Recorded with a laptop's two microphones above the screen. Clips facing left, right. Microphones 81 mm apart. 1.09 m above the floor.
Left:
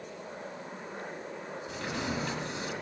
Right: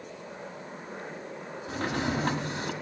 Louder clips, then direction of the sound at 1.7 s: Right 6 dB; 50° right (ahead or behind).